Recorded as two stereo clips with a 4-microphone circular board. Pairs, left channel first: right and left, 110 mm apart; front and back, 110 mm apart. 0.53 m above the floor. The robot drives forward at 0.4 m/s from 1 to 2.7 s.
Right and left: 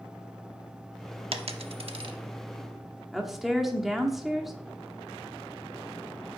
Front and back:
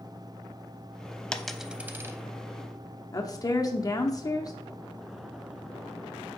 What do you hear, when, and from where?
1.3 s a dropped coin: 80° left, 0.5 m; by 2.2 s 120° left, 0.6 m
3.1 s a woman speaking: 5° left, 0.8 m